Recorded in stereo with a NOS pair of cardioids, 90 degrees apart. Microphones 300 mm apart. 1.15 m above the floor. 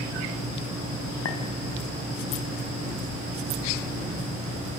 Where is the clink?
55° left, 4.5 m.